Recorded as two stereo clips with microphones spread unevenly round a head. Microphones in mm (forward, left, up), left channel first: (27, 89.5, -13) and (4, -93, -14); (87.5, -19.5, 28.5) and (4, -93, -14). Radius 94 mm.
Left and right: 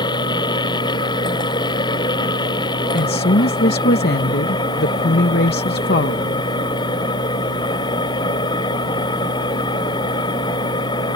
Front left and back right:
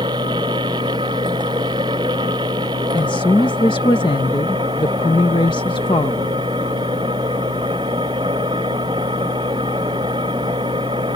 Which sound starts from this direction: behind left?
A machine running, at 0.0 s.